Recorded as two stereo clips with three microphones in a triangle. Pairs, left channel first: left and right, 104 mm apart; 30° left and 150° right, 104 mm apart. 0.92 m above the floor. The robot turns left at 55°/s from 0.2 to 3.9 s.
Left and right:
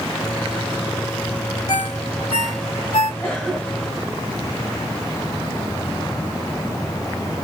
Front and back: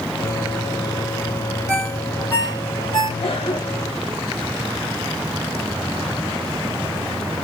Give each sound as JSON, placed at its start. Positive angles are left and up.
{"t": 1.7, "sound": "a ringtone", "azimuth_deg": 135, "distance_m": 2.0}
{"t": 3.2, "sound": "a cough", "azimuth_deg": 15, "distance_m": 1.9}